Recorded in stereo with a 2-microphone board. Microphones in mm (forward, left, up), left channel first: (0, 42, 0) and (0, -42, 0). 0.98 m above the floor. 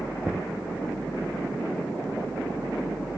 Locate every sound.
0.2 s knocking: 15° right (ahead or behind)